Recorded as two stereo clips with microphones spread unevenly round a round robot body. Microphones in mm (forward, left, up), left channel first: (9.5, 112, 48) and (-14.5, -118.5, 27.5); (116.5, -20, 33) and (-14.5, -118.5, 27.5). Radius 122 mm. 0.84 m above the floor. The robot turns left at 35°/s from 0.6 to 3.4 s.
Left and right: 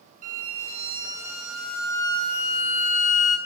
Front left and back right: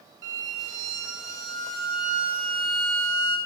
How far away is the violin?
About 2.5 m.